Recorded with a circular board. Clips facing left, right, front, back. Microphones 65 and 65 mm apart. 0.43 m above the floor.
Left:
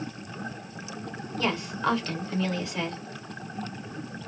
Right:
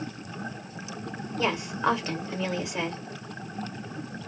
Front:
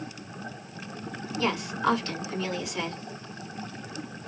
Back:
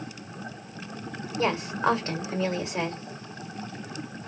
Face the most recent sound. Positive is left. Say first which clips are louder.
# right 1 dB, back 2 dB
turn(degrees=-150)